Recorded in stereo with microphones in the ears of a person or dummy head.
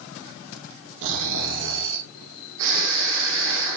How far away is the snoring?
About 0.9 m.